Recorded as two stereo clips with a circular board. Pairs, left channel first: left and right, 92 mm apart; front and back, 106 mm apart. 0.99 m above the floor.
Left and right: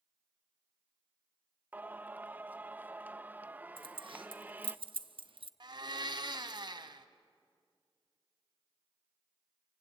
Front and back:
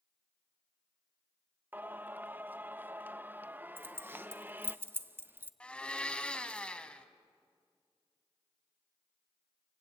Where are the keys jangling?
110° right, 0.8 m.